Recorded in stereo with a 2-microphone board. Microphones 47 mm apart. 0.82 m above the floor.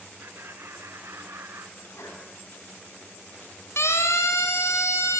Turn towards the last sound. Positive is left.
turn(degrees=85)